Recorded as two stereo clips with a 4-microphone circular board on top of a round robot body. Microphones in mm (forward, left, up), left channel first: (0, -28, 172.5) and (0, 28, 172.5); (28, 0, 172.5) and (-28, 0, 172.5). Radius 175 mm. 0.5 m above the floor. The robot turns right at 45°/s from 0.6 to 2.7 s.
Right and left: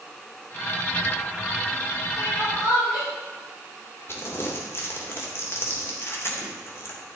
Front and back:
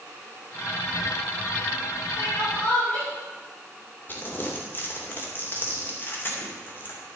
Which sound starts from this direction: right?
Crying, at 2.2 s.